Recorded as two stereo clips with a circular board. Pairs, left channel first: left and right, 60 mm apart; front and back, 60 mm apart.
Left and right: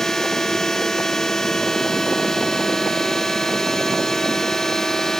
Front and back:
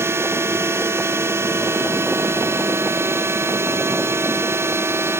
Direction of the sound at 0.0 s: 170° left.